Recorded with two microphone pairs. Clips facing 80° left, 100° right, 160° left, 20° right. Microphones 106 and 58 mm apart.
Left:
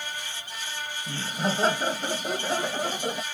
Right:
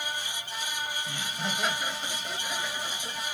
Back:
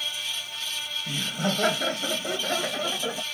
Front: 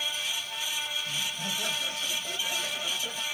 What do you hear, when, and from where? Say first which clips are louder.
1.1 s laughter: left 5 dB, back 6 dB; 130° left; by 3.2 s 110° left